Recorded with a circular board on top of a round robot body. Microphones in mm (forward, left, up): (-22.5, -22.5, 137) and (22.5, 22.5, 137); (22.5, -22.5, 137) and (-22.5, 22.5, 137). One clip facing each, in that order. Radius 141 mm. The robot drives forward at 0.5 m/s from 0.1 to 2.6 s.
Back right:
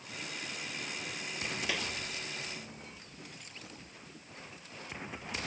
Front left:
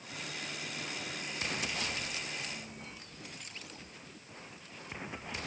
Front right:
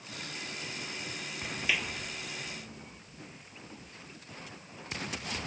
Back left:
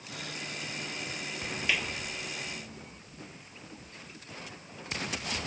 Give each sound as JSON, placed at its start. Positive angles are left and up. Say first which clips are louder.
{"t": 1.7, "sound": "a clap", "louder": "back right 2 dB, back left 1 dB", "azimuth_deg": -135}